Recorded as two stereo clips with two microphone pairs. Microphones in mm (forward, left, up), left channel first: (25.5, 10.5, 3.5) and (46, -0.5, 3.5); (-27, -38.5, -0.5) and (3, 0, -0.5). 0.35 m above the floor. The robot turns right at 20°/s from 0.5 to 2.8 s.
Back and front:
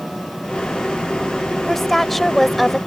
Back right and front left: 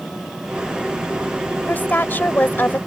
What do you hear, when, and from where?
1.7 s a woman speaking: 140° right; by 2.8 s 120° right